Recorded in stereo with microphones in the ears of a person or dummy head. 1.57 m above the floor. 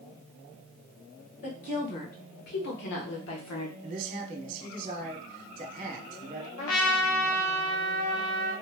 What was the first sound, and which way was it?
A woman speaking, 45° left (ahead or behind).